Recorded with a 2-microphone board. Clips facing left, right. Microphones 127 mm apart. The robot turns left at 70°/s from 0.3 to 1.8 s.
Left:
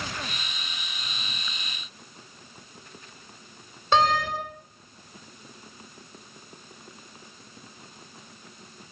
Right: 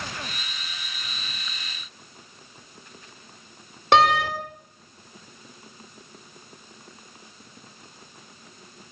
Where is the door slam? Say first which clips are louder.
Right 4 dB; 75° right (ahead or behind), 3.5 m.